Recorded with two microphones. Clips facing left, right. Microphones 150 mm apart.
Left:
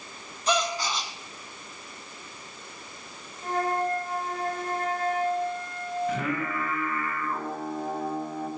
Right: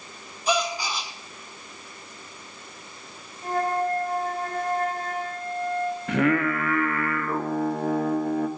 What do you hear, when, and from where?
0.5 s a gasp: 10° right (ahead or behind), 0.9 m
3.4 s a flute: 40° right (ahead or behind), 3 m
6.1 s singing: 65° right (ahead or behind), 0.6 m